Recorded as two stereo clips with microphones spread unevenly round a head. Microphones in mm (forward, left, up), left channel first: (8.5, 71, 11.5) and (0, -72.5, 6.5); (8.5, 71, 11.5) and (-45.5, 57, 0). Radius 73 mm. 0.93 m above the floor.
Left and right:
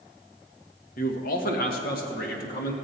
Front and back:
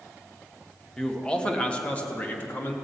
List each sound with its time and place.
1.0 s a man speaking: 100° left, 1.5 m; by 2.7 s 75° left, 2 m